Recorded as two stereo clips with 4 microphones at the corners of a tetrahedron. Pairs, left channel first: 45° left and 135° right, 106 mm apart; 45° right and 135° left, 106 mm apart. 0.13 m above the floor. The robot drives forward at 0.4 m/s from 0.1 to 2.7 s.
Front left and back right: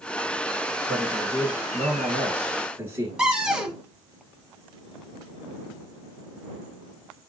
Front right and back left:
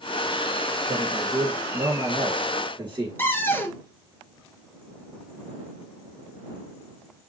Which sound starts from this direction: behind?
A man speaking, at 0.9 s.